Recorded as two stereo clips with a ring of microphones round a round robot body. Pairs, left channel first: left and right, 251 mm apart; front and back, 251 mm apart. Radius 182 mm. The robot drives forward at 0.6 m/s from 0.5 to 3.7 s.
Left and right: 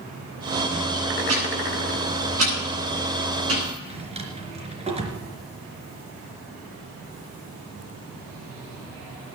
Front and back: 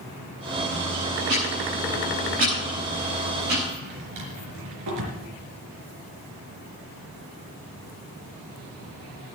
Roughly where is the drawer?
Behind right.